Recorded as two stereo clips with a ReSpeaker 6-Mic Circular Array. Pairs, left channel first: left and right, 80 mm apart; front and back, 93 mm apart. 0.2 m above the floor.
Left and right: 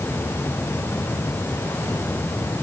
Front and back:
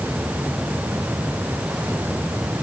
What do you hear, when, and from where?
Only background noise.